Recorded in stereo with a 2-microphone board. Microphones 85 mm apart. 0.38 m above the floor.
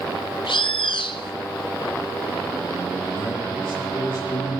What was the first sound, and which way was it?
A bird, 75° left (ahead or behind).